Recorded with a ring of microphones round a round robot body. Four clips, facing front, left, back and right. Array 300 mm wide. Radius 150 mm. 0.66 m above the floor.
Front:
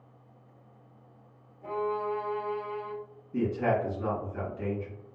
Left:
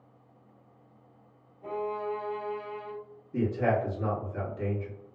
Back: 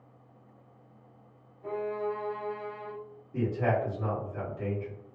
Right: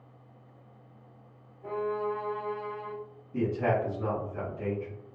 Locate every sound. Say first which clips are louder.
1.6 s a violin: right 2 dB, front 1 dB; 50° left, 0.6 m
3.3 s a man speaking: left 1 dB, front 1 dB; 50° left, 1.3 m